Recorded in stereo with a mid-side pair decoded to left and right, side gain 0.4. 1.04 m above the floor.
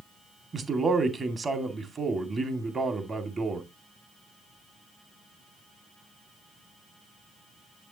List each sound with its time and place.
0.5 s a man speaking: 40° right, 2 m